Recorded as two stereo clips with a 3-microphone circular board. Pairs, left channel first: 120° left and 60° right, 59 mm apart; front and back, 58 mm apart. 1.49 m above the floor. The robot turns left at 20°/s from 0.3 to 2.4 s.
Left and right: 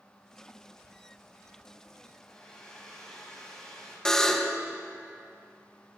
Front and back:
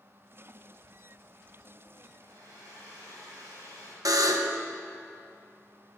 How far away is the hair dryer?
About 6.5 m.